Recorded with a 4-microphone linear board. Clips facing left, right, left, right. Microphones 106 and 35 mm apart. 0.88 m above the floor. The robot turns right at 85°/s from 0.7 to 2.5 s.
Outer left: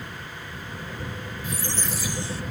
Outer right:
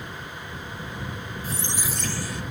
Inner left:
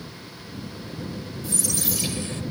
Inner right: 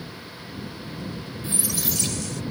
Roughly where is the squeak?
Ahead right.